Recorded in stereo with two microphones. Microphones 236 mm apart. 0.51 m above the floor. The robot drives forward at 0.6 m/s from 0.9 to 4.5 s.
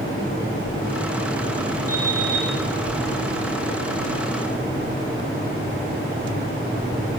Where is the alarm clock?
85° right, 8.5 m.